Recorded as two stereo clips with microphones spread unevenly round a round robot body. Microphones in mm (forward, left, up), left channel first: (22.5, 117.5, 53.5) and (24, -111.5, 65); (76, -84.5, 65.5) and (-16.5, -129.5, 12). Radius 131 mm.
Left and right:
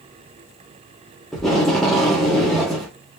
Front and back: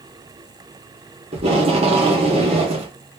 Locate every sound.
1.3 s tape being pulled: straight behind, 0.9 m